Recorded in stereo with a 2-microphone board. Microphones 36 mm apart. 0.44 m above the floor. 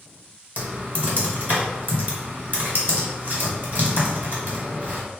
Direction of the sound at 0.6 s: 50° right (ahead or behind).